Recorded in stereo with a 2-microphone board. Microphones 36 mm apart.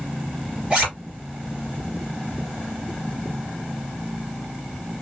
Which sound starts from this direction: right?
A zipper, at 0.7 s.